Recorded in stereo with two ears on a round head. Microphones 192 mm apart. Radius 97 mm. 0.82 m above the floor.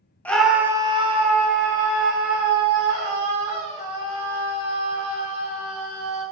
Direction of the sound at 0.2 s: 10° left (ahead or behind).